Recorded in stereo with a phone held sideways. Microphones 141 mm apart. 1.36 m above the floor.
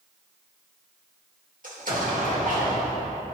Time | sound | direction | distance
1.6 | an explosion | 65° right (ahead or behind) | 1.9 m